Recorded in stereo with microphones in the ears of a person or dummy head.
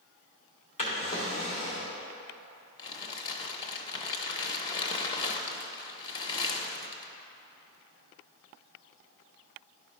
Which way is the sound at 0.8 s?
30° left (ahead or behind).